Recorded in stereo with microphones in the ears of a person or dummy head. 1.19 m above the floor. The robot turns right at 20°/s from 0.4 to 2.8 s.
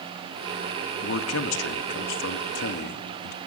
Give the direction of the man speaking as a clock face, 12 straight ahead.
9 o'clock.